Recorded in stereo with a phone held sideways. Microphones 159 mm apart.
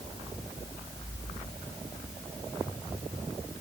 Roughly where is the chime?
I don't hear a chime.